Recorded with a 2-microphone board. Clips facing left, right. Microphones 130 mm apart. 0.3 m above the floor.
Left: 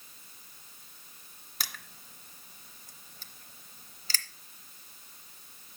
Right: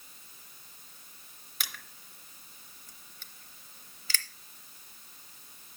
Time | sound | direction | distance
1.6 | crushing | 40° left (ahead or behind) | 0.7 m